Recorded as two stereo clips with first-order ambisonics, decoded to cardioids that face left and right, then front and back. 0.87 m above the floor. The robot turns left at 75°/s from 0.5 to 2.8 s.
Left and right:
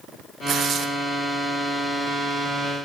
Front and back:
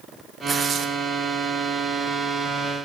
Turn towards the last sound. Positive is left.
turn(degrees=75)